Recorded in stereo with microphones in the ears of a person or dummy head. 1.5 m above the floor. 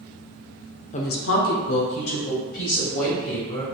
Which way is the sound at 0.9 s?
35° left (ahead or behind).